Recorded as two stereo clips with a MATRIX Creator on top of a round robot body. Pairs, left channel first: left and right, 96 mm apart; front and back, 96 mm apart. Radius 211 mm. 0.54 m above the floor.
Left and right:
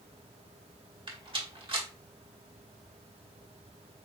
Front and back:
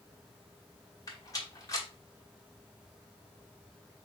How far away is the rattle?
About 2.0 m.